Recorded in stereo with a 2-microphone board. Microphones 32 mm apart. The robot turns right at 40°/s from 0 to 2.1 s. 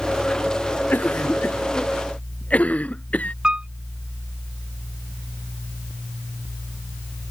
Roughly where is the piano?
Right.